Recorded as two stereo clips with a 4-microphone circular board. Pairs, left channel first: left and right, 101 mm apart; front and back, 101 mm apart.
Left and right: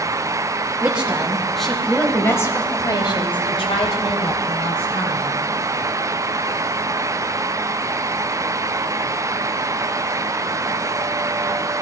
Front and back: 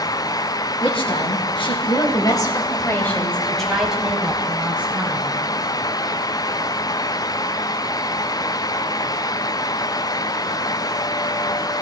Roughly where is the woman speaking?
Ahead.